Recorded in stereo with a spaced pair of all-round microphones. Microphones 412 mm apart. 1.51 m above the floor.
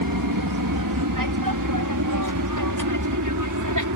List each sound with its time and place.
0.0 s an aircraft: 55° right (ahead or behind); by 4.0 s 45° right (ahead or behind)